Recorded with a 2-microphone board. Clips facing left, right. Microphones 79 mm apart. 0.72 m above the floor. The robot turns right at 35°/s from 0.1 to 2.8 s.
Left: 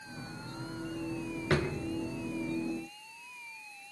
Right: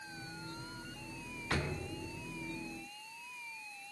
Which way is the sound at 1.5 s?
70° left (ahead or behind).